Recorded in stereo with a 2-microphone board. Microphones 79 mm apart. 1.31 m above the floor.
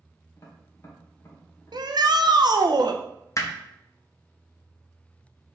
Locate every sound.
0.4 s tapping: 40° left (ahead or behind), 1.8 m
1.7 s a shout: 60° right (ahead or behind), 0.8 m
3.4 s hammering: 40° left (ahead or behind), 0.9 m